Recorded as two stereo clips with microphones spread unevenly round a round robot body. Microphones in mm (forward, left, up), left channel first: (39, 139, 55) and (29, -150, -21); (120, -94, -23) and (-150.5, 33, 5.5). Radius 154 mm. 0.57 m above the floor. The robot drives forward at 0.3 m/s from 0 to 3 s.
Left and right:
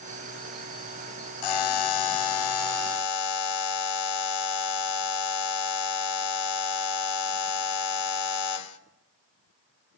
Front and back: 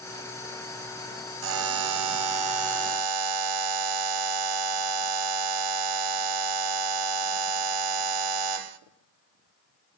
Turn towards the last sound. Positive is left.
turn(degrees=130)